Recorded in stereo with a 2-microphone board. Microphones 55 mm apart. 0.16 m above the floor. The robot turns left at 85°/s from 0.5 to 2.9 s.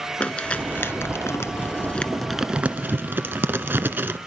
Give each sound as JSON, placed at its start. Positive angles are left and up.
{"t": 0.2, "sound": "crumpling", "side_deg": 20, "distance_m": 0.9}